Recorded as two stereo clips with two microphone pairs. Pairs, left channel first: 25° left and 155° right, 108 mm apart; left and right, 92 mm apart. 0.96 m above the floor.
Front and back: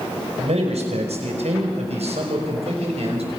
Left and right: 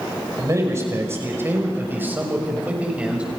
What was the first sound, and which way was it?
A man speaking, 150° right.